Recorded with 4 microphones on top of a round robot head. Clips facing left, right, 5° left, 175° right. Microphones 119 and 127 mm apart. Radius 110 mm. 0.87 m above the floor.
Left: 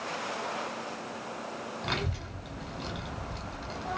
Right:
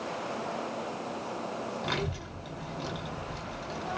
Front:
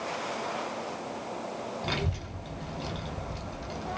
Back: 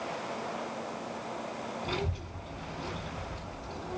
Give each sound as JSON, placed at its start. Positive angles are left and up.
{"t": 1.8, "sound": "a child speaking", "azimuth_deg": -5, "distance_m": 2.0}